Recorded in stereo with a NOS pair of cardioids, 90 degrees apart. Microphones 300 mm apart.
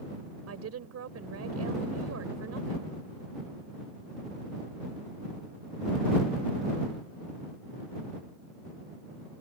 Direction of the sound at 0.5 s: 55° right.